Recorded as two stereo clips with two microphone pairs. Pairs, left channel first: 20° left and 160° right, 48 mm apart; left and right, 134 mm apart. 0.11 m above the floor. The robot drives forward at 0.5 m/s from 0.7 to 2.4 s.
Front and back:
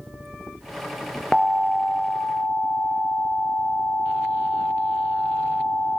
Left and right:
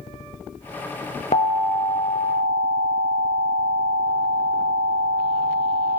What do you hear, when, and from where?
1.3 s an alarm: 85° left, 1.3 m; by 6.0 s 115° left, 1.4 m